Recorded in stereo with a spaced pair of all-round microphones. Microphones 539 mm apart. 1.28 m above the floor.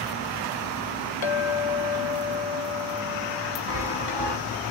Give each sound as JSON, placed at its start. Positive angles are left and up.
{"t": 1.2, "sound": "a clink", "side_deg": 60, "distance_m": 0.7}
{"t": 3.7, "sound": "a chime", "side_deg": 50, "distance_m": 1.2}